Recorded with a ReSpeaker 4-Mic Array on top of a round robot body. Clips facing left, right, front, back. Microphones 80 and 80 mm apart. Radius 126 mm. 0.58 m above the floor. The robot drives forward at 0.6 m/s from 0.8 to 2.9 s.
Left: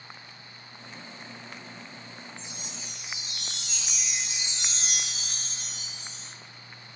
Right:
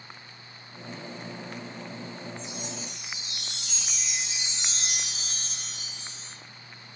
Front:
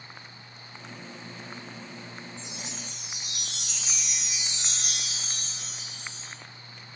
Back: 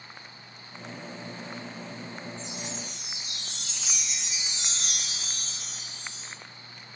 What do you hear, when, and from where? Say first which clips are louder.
2.4 s a chime: right 6 dB, back 3 dB; 20° left, 5.5 m